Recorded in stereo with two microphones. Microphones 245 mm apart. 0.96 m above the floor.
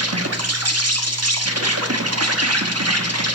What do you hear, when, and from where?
0.0 s an insect: 90° right, 1.1 m